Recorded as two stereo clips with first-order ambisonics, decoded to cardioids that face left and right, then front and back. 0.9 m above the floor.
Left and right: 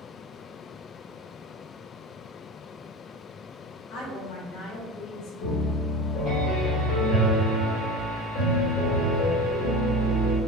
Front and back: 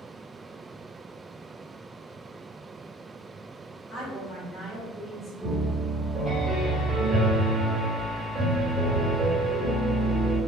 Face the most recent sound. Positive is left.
turn(degrees=105)